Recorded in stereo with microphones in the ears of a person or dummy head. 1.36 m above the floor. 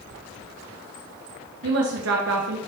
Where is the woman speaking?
80° right, 1.0 m.